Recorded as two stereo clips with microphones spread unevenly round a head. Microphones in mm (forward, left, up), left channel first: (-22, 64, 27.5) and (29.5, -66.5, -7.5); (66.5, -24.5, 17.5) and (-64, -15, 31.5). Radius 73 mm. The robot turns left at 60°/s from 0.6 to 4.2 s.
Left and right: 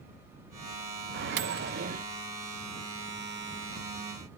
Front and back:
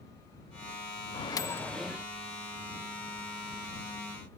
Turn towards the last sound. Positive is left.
turn(degrees=120)